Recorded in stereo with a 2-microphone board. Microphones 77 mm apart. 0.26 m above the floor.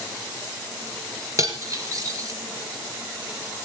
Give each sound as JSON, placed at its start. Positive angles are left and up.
{"t": 1.4, "sound": "cutlery clinking", "side_deg": -45, "distance_m": 2.5}